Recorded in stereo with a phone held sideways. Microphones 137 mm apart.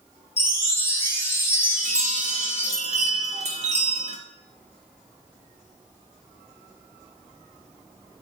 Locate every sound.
0.4 s a chime: 20° left (ahead or behind), 1.4 m
1.7 s a chime: 55° right (ahead or behind), 1.5 m